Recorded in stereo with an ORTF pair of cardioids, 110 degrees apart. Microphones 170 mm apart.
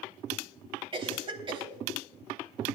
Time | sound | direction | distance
0.9 | a cough | 30° right | 3.5 m